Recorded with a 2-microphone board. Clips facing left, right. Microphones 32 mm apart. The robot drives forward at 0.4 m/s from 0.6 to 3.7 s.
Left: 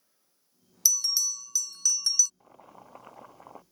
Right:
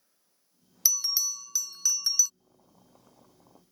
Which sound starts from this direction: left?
Boiling, at 2.4 s.